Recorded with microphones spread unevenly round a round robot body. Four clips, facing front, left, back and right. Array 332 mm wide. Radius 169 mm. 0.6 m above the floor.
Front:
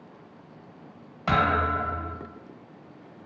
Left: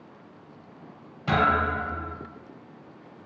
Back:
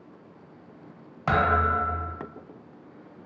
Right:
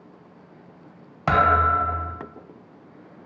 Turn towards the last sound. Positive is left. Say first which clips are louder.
# right 5 dB, back 1 dB
turn(degrees=-90)